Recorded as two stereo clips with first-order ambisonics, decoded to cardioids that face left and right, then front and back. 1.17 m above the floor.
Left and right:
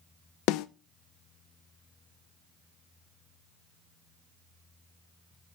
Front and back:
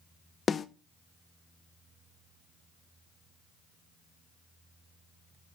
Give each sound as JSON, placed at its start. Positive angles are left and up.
{"t": 0.5, "sound": "a snare drum", "azimuth_deg": 70, "distance_m": 0.6}